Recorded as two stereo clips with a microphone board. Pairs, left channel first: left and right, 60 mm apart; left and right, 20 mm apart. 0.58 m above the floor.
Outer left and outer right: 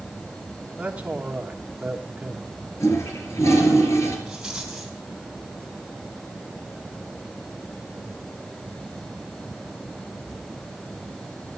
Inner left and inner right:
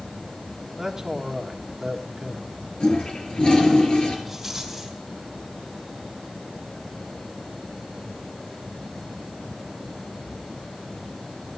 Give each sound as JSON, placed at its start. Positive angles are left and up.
{"t": 0.8, "sound": "a man speaking", "side_deg": -20, "distance_m": 1.6}
{"t": 2.8, "sound": "a toilet flushing", "side_deg": 55, "distance_m": 3.5}
{"t": 4.3, "sound": "a rattle", "side_deg": -10, "distance_m": 3.5}